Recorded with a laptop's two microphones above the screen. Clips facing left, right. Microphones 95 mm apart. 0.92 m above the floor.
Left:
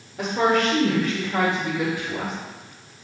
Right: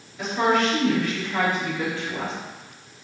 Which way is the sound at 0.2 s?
60° left (ahead or behind).